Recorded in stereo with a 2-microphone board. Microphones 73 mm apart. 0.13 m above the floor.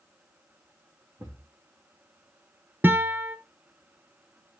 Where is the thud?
40° right (ahead or behind), 4 m.